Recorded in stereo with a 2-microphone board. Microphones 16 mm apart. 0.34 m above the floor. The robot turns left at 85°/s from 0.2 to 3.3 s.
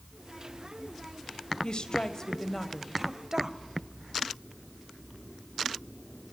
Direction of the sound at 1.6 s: 100° left.